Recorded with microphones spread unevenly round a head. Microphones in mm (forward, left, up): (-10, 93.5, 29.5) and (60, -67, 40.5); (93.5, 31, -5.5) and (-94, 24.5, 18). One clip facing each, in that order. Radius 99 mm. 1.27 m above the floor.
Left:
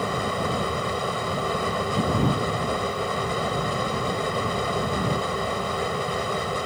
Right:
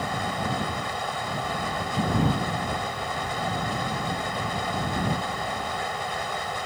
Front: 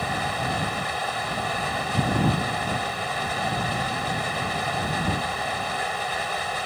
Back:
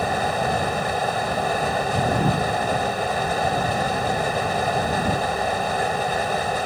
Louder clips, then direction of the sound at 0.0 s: Left 3 dB, back 6 dB; 135° left.